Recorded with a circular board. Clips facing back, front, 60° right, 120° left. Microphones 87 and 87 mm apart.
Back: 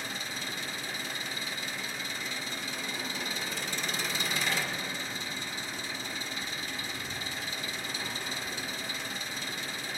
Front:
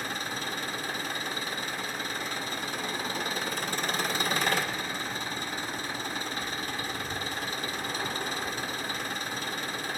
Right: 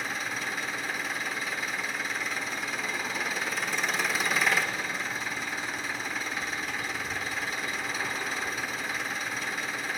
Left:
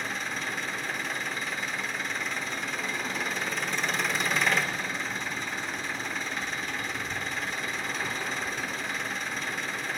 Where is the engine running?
25° left, 1.4 m.